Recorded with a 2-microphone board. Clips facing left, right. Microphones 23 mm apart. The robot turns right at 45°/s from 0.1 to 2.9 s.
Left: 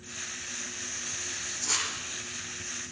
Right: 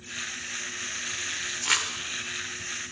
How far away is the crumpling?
About 3.5 m.